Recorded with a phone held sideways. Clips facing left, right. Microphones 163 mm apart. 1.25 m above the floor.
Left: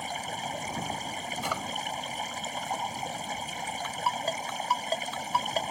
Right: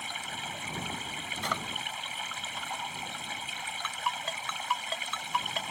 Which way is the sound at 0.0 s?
40° left (ahead or behind).